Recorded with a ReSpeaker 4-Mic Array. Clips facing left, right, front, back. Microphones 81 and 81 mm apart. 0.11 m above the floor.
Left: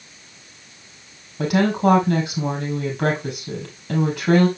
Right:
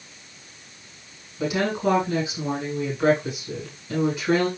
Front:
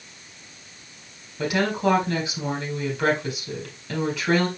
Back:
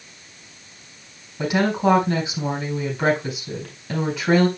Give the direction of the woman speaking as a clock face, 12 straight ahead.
9 o'clock.